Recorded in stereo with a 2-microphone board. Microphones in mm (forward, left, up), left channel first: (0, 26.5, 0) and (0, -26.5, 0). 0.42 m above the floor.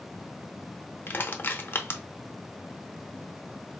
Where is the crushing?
40° left (ahead or behind), 0.7 m.